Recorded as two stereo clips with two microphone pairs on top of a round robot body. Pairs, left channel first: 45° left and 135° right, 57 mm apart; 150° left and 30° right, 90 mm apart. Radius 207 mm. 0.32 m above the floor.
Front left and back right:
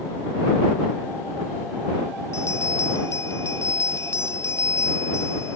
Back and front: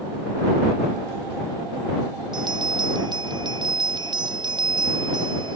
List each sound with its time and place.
2.3 s a bell: 5° left